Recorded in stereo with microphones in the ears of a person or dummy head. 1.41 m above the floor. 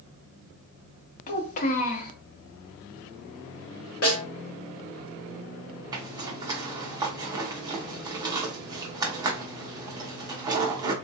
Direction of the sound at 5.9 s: 20° right (ahead or behind).